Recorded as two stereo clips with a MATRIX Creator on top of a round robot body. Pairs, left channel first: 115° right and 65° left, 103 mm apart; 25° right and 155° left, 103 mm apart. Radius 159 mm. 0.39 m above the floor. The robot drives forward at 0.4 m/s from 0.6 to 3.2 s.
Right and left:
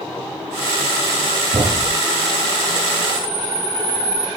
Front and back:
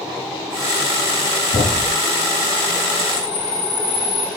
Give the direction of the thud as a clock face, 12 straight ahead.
12 o'clock.